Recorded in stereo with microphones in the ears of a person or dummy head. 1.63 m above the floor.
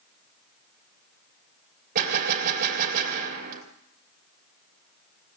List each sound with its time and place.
1.9 s a gunshot: 50° right (ahead or behind), 2.5 m